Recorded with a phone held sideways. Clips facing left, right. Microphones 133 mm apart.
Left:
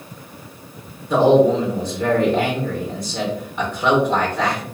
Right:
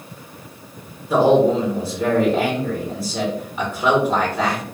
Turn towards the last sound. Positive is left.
turn(degrees=-5)  # may be behind; listen again after turning